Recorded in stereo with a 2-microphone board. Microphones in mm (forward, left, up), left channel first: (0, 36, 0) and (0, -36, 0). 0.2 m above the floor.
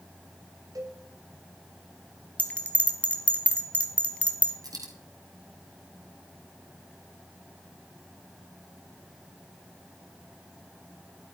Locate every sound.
0.8 s a cowbell: 55° right (ahead or behind), 2.5 m
2.4 s a bell: 20° left (ahead or behind), 1.6 m
4.6 s a dropped coin: 60° right (ahead or behind), 2.5 m